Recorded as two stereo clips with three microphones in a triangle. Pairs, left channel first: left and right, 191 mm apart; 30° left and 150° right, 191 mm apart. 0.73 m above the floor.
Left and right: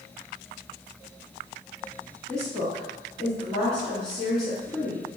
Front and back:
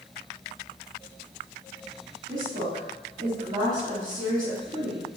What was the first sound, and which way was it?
A woman speaking, 175° left.